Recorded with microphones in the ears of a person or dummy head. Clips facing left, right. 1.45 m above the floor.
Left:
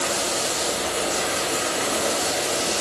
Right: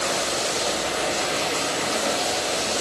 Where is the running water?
85° left, 3.5 m.